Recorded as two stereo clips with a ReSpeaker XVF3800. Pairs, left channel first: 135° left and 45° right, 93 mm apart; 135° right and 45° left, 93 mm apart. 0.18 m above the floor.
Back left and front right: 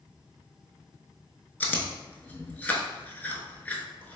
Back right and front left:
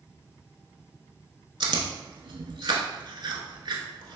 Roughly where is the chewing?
Ahead left.